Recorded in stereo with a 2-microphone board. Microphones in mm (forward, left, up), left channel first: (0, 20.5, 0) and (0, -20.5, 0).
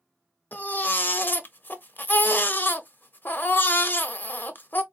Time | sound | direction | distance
0.5 | a baby crying | 50° left (ahead or behind) | 0.6 m